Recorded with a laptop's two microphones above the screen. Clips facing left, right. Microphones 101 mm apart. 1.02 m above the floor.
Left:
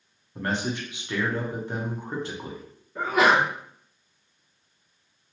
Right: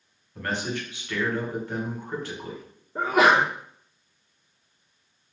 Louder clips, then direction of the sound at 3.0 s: Right 1 dB; 40° right (ahead or behind).